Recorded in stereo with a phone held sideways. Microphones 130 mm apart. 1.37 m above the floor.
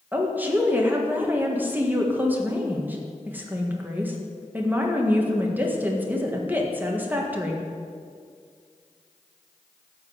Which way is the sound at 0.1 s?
15° right (ahead or behind).